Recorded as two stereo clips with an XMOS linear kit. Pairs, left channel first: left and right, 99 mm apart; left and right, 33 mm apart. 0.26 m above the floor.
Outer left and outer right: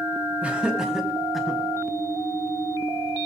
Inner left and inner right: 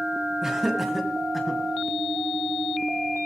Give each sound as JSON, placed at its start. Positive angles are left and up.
{"t": 0.4, "sound": "laughter", "side_deg": -15, "distance_m": 3.0}